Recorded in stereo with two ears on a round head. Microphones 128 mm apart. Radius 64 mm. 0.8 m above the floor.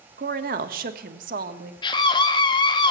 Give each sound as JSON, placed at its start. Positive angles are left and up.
{"t": 0.2, "sound": "a woman speaking", "side_deg": -65, "distance_m": 1.4}
{"t": 1.8, "sound": "a scream", "side_deg": 35, "distance_m": 0.8}